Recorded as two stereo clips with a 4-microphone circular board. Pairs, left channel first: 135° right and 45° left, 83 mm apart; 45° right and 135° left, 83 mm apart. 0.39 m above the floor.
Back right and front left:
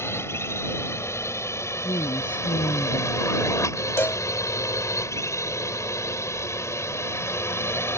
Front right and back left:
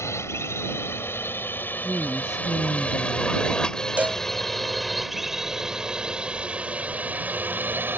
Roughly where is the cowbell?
Behind.